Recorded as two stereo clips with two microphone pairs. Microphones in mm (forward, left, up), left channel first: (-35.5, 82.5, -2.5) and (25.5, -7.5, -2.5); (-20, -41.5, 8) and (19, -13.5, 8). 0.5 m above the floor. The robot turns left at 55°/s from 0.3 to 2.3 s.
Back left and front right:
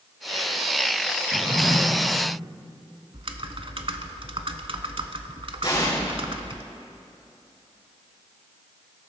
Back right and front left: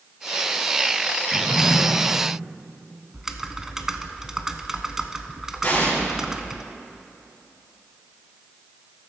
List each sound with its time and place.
1.3 s a drawer: 140° right, 1.9 m; by 1.8 s 165° right, 1.9 m
3.1 s typing on a keyboard: 45° right, 0.6 m
5.6 s an explosion: 165° left, 4.5 m